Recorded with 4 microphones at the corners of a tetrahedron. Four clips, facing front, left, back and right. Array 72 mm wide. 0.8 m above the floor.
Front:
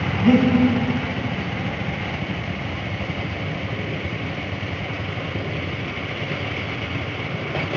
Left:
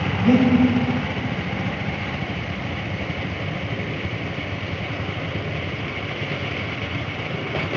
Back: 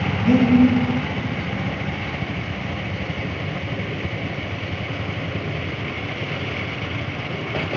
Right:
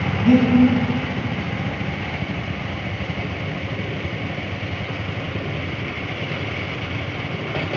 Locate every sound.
0.2 s breathing: 10° left, 1.9 m